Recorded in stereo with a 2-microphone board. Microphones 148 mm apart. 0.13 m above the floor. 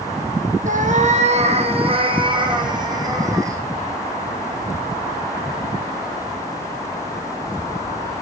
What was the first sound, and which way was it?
A cat meowing, 60° right (ahead or behind).